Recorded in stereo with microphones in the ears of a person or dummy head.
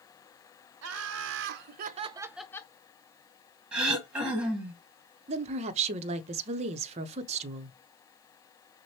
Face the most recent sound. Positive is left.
turn(degrees=-40)  # may be behind; listen again after turning